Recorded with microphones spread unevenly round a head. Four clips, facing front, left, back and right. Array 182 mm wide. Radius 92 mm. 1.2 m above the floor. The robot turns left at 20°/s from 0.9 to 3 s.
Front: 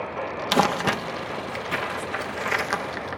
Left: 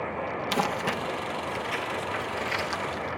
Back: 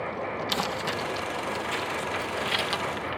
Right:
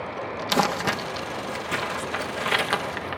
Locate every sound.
0.5 s crumpling: 20° right; by 3.2 s 65° right